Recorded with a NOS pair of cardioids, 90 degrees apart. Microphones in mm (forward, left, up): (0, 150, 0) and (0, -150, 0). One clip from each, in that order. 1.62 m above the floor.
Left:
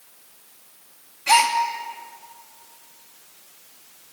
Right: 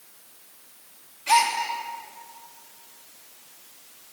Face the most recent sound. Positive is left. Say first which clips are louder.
# left 3 dB
turn(degrees=30)